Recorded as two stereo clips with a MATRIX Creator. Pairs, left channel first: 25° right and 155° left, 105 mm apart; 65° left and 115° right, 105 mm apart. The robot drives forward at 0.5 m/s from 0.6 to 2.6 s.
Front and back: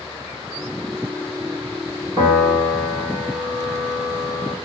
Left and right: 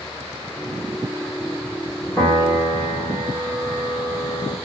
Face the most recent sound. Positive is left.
turn(degrees=140)